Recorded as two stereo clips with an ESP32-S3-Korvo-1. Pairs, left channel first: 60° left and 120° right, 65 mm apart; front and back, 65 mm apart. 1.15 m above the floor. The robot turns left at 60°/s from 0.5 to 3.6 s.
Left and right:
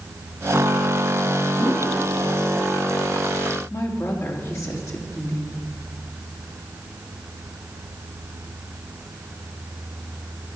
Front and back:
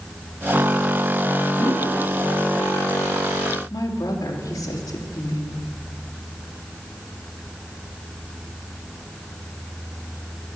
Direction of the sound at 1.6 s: 135° right.